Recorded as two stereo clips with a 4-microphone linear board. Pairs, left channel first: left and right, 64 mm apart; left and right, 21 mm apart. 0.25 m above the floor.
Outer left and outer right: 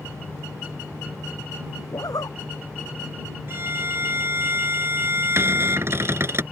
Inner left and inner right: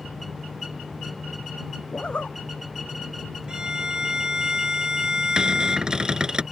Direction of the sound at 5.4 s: 45° right (ahead or behind).